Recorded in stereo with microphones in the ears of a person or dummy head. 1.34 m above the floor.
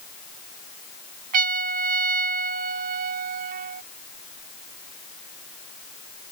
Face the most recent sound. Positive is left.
turn(degrees=-50)  # may be behind; listen again after turning